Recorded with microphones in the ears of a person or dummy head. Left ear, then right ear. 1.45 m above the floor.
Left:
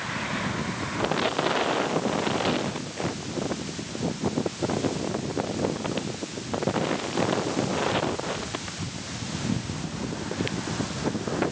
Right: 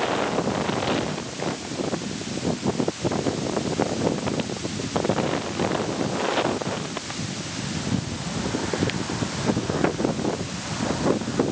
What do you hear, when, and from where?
Only background noise.